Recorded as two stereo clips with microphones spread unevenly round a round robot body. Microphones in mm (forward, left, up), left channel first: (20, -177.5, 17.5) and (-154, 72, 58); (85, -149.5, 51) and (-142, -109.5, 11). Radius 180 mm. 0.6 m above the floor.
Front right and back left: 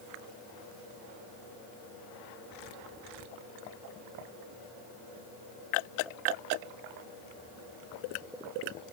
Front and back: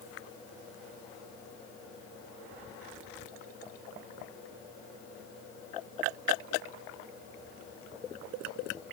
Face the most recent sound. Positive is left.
No sound to turn to.